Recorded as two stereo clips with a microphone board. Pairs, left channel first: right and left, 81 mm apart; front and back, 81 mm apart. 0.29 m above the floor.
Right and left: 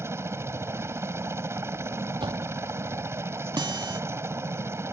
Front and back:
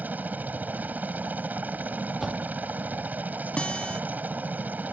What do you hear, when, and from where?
0.0 s a helicopter: 125° left
2.2 s a door slam: 90° left
3.6 s a guitar: 75° left